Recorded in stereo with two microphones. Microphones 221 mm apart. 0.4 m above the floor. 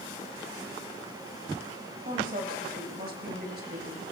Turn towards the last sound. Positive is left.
turn(degrees=-50)  # may be behind; listen again after turning